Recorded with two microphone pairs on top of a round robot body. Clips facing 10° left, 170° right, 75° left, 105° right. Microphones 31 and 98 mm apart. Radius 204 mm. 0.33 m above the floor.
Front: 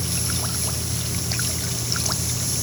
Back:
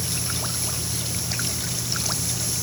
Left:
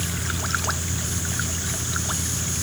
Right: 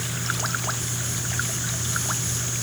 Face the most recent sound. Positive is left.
No sound to turn to.